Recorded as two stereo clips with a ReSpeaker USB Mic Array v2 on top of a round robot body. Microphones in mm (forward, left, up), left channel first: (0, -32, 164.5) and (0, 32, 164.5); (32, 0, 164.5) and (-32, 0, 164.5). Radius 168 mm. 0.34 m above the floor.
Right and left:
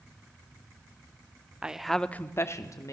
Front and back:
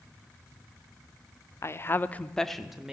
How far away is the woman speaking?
About 1.2 m.